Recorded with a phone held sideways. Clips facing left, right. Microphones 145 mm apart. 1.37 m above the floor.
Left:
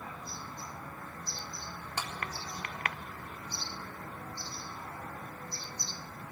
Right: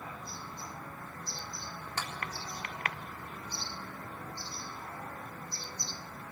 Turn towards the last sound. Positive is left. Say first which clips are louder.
# left 1 dB
turn(degrees=15)  # may be behind; listen again after turning